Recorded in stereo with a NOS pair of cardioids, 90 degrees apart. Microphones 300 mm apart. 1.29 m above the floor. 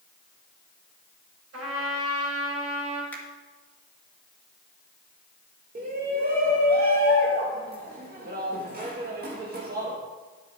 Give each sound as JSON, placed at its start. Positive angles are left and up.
{"t": 1.5, "sound": "a trumpet", "azimuth_deg": -55, "distance_m": 4.5}
{"t": 3.1, "sound": "a finger snap", "azimuth_deg": 5, "distance_m": 2.0}
{"t": 5.8, "sound": "a shout", "azimuth_deg": -30, "distance_m": 1.7}